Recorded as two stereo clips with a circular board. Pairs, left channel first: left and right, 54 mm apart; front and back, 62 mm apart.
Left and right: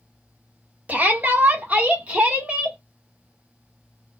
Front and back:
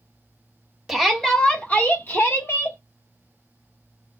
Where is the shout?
95° right, 1.0 m; by 2.8 s 25° right, 1.4 m.